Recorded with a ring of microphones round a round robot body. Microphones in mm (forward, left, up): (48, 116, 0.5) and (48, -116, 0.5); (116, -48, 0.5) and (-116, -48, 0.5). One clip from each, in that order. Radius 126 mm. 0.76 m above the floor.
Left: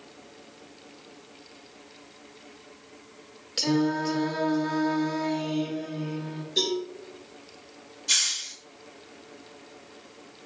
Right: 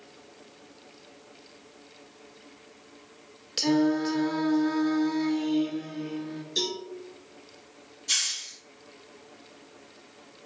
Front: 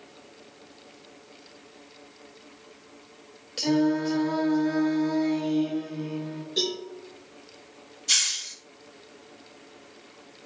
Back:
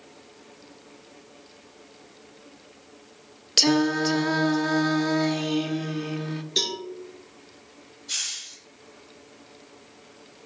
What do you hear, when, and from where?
3.6 s singing: 170° right, 0.8 m
6.6 s a cowbell: 155° right, 4 m
8.1 s a hiss: straight ahead, 2.5 m